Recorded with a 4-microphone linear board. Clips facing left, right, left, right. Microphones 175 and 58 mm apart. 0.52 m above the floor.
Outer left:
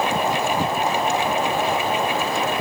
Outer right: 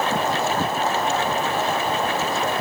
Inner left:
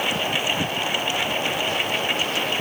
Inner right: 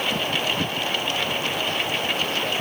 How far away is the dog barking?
No dog barking in this recording.